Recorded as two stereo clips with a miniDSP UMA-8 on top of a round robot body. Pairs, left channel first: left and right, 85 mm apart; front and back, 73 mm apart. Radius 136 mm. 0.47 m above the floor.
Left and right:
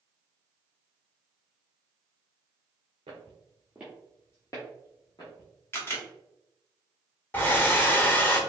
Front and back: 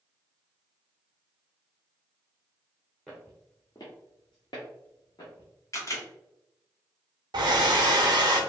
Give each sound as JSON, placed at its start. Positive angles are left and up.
{"t": 3.1, "sound": "footsteps", "azimuth_deg": -90, "distance_m": 0.6}
{"t": 5.7, "sound": "a camera shutter", "azimuth_deg": 35, "distance_m": 1.0}
{"t": 7.3, "sound": "a hair dryer", "azimuth_deg": 155, "distance_m": 0.6}